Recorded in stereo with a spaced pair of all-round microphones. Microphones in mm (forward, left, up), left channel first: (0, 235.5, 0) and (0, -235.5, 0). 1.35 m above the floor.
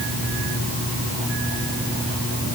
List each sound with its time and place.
Only background noise.